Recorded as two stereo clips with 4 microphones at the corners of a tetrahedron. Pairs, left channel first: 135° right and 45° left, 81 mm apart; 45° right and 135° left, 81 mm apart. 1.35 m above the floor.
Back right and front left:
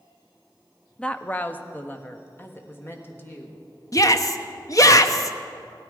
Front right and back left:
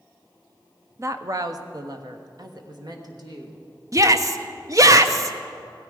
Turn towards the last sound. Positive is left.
turn(degrees=180)